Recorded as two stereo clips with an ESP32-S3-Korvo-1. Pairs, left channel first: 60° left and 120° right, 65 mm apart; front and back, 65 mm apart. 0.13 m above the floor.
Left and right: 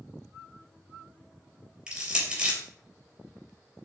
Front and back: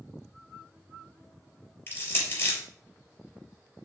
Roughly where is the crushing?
Ahead right.